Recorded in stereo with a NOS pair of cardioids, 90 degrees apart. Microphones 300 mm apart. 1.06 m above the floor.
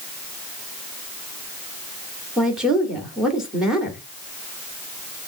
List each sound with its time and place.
2.4 s a woman speaking: straight ahead, 2.5 m